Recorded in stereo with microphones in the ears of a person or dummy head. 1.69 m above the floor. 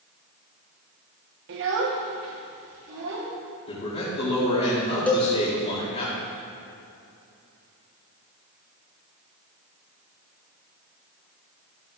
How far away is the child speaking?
About 1.6 m.